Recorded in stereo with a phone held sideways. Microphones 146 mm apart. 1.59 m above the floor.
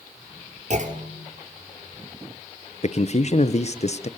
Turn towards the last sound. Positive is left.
turn(degrees=50)  # may be behind; listen again after turning